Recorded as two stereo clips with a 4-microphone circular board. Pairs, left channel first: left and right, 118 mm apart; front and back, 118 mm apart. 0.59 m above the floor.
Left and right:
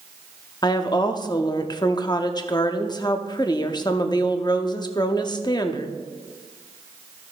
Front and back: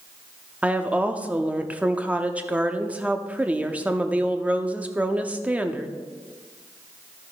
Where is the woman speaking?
110° left, 0.7 m.